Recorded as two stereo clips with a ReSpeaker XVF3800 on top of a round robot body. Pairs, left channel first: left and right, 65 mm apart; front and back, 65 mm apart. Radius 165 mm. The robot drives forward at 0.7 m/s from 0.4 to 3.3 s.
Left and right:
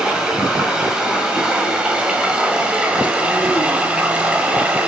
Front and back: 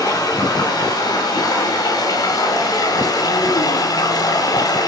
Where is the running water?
10° right, 6.5 m; by 4.9 s 15° right, 5 m.